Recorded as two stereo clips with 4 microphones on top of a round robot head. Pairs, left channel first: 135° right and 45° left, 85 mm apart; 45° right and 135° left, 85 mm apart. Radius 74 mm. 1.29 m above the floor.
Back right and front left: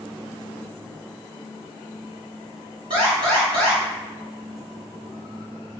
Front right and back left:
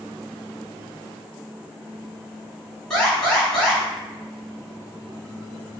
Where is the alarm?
35° left, 2.0 m.